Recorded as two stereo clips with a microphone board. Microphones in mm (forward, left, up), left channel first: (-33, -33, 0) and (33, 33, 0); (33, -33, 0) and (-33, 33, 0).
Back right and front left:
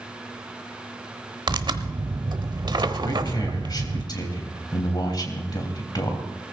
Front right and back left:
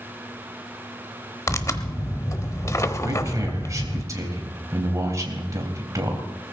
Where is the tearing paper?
10° left, 0.9 m.